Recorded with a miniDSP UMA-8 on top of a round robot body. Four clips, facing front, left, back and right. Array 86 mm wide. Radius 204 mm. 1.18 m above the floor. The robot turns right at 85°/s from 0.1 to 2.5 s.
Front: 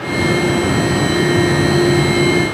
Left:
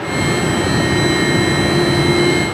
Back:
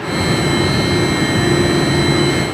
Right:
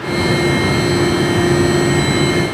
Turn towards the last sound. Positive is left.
No sound to turn to.